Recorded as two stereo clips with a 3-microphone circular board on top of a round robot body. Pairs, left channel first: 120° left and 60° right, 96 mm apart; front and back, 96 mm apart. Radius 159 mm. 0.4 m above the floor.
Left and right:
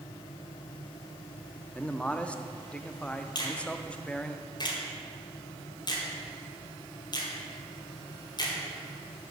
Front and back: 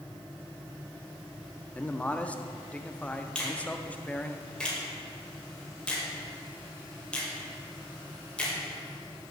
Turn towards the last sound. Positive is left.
turn(degrees=80)